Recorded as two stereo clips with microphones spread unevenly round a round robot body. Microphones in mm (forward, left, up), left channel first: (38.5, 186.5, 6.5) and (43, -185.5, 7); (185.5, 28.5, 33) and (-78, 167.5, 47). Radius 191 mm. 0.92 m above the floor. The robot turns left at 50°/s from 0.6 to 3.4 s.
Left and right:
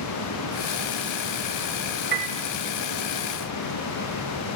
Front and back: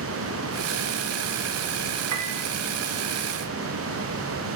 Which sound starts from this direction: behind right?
A piano, at 2.1 s.